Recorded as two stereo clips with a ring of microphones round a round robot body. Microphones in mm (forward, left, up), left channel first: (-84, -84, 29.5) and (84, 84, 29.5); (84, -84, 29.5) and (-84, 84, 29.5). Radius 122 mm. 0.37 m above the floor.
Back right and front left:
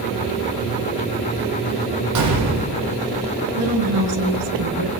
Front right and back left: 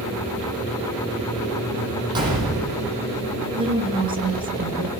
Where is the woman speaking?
65° left, 5 m.